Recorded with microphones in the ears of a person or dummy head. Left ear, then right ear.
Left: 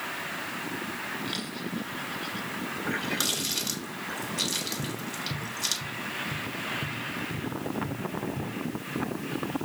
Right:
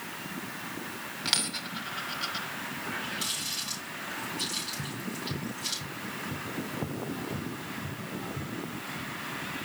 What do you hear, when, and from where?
1.2 s a dropped coin: 50° right (ahead or behind), 2 m
2.8 s a running tap: 85° left, 5 m
4.8 s tapping: 10° right (ahead or behind), 1.2 m